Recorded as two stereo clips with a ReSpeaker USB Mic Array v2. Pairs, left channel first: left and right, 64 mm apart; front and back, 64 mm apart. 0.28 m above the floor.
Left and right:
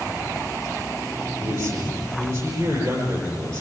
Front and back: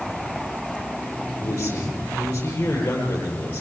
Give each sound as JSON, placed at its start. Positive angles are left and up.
{"t": 1.4, "sound": "a man speaking", "azimuth_deg": -65, "distance_m": 8.5}